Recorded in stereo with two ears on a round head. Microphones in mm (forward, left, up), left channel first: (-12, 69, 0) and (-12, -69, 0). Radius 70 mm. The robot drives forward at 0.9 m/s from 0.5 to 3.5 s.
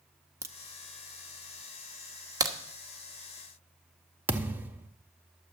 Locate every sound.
0.4 s a crack: 15° right (ahead or behind), 0.7 m
2.4 s a crack: 25° right (ahead or behind), 1.2 m; by 2.5 s 20° right (ahead or behind), 1.3 m
4.3 s a thud: 10° right (ahead or behind), 0.7 m